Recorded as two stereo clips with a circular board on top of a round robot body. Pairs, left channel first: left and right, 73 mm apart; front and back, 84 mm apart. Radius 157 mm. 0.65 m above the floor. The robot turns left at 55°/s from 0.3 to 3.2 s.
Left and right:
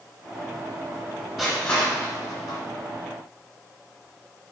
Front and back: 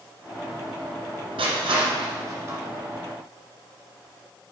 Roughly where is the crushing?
Behind.